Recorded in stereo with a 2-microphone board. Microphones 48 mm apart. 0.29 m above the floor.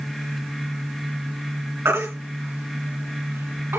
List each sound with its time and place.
1.9 s a baby crying: 70° right (ahead or behind), 2.5 m